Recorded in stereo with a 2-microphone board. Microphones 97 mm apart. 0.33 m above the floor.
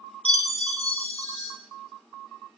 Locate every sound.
0.2 s a chime: 65° left (ahead or behind), 0.5 m